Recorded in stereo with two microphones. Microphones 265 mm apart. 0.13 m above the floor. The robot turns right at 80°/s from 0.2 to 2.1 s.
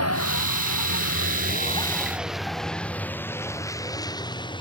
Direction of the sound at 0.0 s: 65° left (ahead or behind).